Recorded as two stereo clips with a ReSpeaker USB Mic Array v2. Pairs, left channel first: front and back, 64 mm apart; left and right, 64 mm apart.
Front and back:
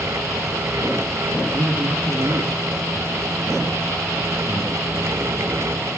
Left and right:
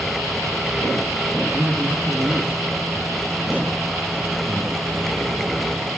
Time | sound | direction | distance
1.5 | a man speaking | 155° right | 3.5 m